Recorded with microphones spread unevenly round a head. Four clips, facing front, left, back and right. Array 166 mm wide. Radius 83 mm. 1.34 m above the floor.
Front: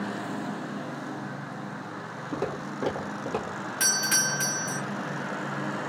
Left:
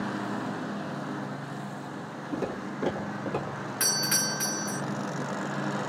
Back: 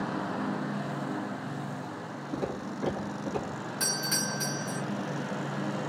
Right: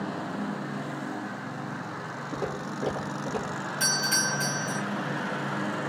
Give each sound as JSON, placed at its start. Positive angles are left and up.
{"t": 2.3, "sound": "footsteps", "azimuth_deg": -10, "distance_m": 1.9}
{"t": 3.8, "sound": "a doorbell", "azimuth_deg": 35, "distance_m": 1.4}